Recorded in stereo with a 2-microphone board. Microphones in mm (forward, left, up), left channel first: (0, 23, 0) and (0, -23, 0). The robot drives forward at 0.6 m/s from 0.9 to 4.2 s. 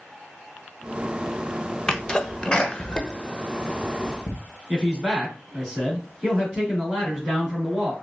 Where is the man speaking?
Centre (ahead or behind), 3 m.